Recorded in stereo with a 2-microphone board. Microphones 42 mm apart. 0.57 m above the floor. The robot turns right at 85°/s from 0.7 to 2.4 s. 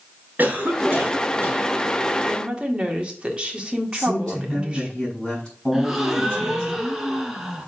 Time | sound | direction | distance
0.4 | a cough | 130° right | 3.5 m
2.2 | a woman speaking | 35° right (ahead or behind) | 1.7 m
3.9 | a man speaking | 15° left (ahead or behind) | 5 m
5.7 | a gasp | 10° right (ahead or behind) | 1.5 m